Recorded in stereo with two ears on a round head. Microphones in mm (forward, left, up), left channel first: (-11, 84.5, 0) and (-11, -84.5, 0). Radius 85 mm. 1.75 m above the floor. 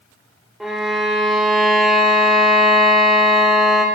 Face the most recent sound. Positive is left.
turn(degrees=0)  # may be behind; listen again after turning